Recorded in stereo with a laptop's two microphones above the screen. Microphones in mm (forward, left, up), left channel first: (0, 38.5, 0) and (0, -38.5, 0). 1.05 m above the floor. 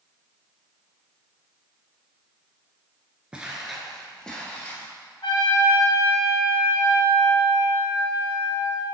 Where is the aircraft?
No aircraft in this recording.